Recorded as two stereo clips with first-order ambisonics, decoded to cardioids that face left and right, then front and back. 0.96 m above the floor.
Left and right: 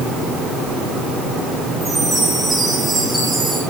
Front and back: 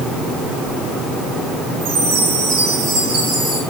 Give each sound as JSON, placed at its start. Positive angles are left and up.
{"t": 1.8, "sound": "a chime", "azimuth_deg": 175, "distance_m": 9.5}